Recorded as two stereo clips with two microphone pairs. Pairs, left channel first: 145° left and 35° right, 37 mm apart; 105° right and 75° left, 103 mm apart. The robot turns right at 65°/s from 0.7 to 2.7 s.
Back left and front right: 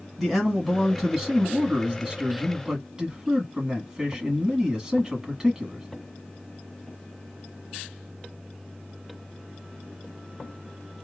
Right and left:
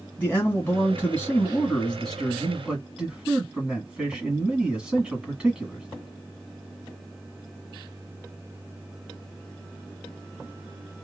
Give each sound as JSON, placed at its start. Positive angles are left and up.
{"t": 0.2, "sound": "a man speaking", "azimuth_deg": -130, "distance_m": 1.5}